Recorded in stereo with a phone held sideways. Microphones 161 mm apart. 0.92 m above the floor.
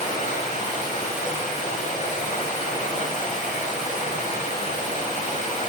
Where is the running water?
50° left (ahead or behind), 1.2 m.